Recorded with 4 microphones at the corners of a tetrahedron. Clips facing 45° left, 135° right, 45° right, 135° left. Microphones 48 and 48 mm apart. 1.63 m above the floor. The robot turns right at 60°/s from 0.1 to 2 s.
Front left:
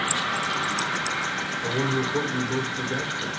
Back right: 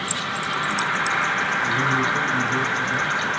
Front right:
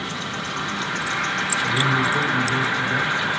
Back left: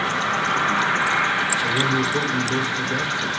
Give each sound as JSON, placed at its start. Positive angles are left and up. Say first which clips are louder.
{"t": 0.0, "sound": "an insect", "louder": "even, back left 7 dB", "azimuth_deg": 125, "distance_m": 1.0}
{"t": 1.6, "sound": "a man speaking", "louder": "back right 2 dB, even", "azimuth_deg": 60, "distance_m": 5.0}